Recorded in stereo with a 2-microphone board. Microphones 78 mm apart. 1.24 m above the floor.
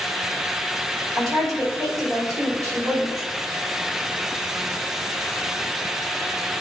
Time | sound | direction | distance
1.2 | a woman speaking | 45° right (ahead or behind) | 3 m